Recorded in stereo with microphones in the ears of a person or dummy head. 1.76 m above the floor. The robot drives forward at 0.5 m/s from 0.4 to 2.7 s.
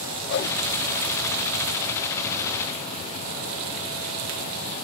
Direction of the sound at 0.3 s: 55° left (ahead or behind).